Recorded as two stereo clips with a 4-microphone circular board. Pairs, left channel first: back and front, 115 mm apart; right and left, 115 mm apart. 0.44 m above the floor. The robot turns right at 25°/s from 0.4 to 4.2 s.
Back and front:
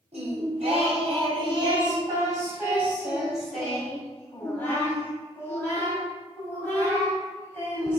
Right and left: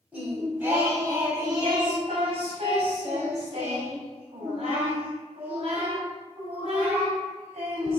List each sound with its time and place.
0.1 s singing: 15° left, 2.5 m; by 8.0 s 110° left, 2.5 m